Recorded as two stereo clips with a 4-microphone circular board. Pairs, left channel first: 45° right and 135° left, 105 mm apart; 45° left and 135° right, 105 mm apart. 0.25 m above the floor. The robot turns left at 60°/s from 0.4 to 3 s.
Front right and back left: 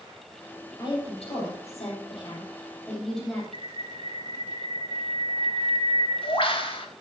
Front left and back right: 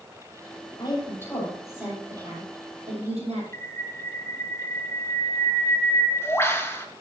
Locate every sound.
0.8 s a woman speaking: 5° left, 8 m; by 3.4 s 130° right, 8 m
3.5 s a bird: 20° right, 2.5 m